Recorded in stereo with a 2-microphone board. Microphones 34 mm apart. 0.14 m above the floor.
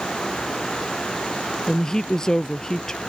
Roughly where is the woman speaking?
Centre.